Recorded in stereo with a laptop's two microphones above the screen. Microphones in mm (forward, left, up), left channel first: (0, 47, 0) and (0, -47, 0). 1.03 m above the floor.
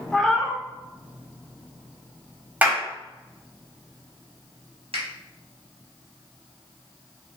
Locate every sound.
0.1 s a cat meowing: 5° left (ahead or behind), 0.5 m
2.6 s a clap: 15° right (ahead or behind), 1.6 m
4.9 s a finger snap: 85° right, 1.0 m